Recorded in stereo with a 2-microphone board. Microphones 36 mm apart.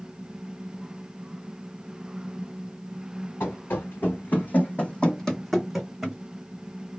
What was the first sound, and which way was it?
Running footsteps, 80° left.